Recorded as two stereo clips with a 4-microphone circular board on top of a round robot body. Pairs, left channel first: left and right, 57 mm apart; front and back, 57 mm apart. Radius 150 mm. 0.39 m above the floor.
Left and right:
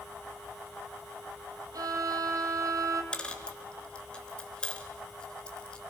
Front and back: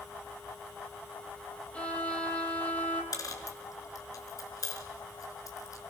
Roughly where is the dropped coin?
Ahead.